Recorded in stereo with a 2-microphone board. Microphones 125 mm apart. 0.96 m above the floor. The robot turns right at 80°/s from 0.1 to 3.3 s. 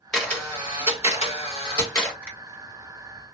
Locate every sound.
0.1 s a camera shutter: 5° left, 1.4 m; by 2.1 s 165° left, 1.4 m
2.2 s a finger snap: 15° right (ahead or behind), 1.6 m; by 2.4 s 25° right (ahead or behind), 1.6 m